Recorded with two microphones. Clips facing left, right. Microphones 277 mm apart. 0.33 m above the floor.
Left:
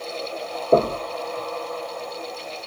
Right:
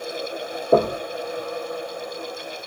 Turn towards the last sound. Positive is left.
turn(degrees=-5)  # may be behind; listen again after turning